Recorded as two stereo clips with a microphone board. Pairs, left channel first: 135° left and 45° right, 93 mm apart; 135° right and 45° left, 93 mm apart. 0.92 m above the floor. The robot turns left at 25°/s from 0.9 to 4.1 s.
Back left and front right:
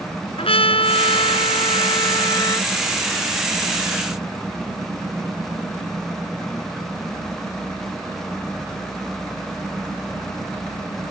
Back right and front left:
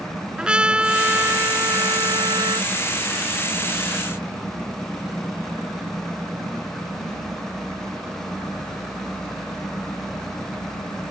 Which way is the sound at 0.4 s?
125° left.